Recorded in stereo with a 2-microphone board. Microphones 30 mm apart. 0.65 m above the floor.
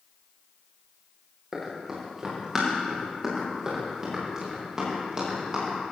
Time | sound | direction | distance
1.5 | running footsteps | 15° right (ahead or behind) | 6 m